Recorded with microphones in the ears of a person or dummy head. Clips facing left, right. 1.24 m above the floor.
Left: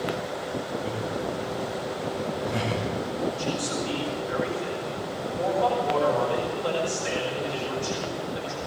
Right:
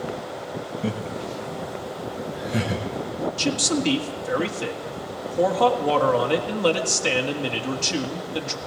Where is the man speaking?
80° right, 1.8 m.